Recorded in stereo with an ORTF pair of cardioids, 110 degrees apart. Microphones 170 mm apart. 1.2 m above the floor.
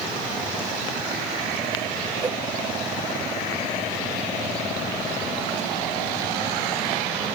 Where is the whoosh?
25° right, 0.9 m.